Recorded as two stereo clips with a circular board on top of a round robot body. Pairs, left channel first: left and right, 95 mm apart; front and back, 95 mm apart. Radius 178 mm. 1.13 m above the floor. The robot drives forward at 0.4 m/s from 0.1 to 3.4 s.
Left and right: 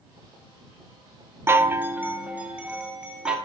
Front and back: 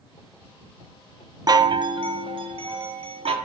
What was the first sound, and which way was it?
A chime, 145° right.